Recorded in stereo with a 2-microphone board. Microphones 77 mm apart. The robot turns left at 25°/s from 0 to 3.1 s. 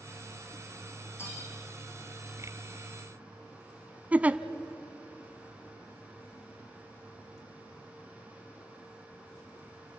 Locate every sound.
1.2 s cutlery clinking: 30° left (ahead or behind), 5.5 m; by 1.5 s 25° left (ahead or behind), 5.5 m
4.1 s a giggle: 20° right (ahead or behind), 0.6 m